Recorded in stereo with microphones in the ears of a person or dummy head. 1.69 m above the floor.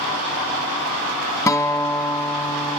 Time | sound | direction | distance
1.5 | a guitar | 25° left (ahead or behind) | 0.8 m